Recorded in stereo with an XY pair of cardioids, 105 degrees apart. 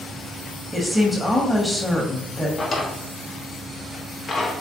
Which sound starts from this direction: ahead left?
A drawer, at 2.6 s.